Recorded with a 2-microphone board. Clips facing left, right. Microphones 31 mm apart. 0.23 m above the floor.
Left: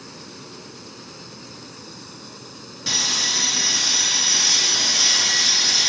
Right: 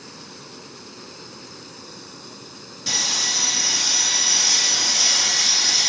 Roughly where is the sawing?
Centre.